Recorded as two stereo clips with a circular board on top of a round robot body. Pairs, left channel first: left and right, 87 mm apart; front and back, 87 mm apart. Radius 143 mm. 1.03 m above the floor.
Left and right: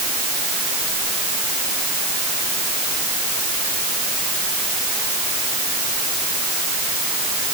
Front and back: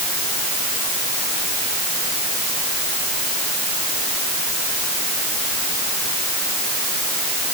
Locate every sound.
Only background noise.